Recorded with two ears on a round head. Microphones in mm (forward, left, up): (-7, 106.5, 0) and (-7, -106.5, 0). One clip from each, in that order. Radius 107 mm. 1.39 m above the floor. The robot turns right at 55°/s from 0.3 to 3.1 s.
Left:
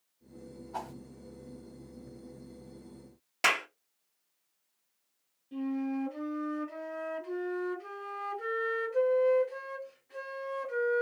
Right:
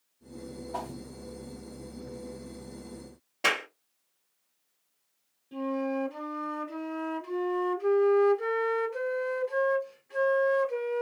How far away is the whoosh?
About 0.9 m.